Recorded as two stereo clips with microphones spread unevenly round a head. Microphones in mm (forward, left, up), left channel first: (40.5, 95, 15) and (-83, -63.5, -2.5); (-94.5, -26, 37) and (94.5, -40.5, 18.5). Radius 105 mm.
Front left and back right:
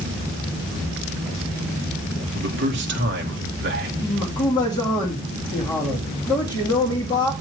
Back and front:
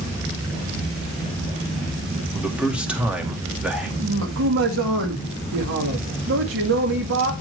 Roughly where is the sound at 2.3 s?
Right.